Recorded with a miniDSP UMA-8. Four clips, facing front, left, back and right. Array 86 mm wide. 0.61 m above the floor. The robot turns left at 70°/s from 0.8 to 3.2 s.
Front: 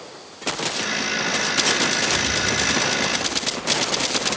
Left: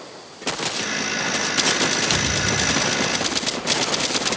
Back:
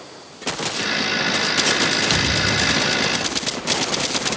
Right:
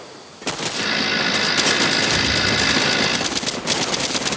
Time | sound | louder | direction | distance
2.1 | a thud | right 2 dB, back 2 dB | 145° left | 1.7 m